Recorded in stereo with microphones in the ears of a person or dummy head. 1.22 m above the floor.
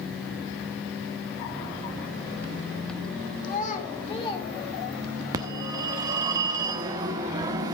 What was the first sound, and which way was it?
A child speaking, 50° left (ahead or behind).